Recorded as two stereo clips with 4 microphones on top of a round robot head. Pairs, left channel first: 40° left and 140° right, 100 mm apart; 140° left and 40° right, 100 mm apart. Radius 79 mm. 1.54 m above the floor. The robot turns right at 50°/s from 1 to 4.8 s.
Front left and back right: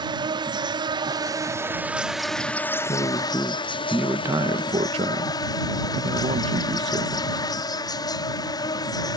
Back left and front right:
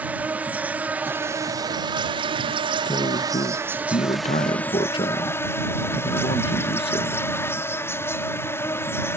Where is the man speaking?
85° left; by 7.3 s 175° right.